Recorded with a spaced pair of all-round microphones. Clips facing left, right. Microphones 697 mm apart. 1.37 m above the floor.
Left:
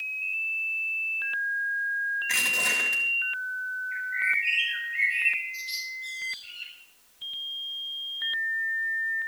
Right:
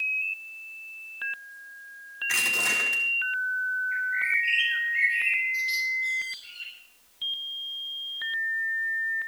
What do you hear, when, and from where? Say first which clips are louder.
2.3 s crushing: right 1 dB; 50° left (ahead or behind), 4.5 m
3.9 s a bird: right 2 dB; 60° left (ahead or behind), 7 m